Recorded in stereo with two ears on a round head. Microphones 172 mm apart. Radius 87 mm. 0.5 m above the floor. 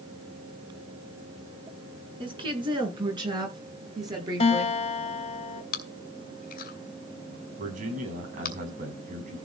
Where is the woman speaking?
30° right (ahead or behind), 6.5 m; by 4.8 s 20° right (ahead or behind), 8.5 m.